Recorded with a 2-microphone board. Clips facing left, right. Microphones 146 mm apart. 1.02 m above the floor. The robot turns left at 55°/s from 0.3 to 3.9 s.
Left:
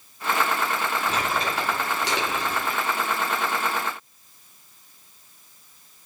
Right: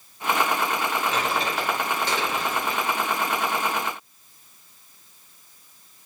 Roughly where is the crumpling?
Left.